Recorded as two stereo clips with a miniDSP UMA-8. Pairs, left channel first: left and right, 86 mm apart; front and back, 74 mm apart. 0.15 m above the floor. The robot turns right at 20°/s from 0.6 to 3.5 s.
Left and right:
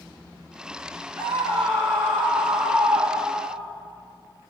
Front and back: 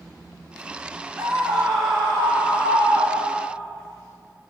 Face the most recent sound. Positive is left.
turn(degrees=-50)